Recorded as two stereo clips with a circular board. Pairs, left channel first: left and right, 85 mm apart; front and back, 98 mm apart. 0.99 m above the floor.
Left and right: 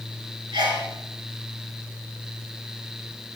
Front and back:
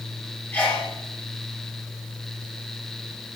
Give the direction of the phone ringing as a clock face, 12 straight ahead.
No phone ringing in this recording.